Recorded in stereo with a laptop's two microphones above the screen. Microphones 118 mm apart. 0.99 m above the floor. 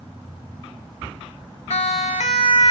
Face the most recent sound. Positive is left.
turn(degrees=55)  # may be behind; listen again after turning